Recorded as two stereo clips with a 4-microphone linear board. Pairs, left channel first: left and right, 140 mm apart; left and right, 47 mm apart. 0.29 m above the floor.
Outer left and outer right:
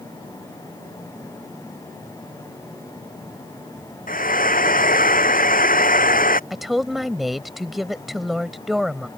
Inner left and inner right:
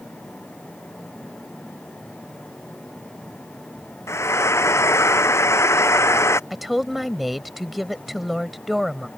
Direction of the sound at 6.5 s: Centre (ahead or behind).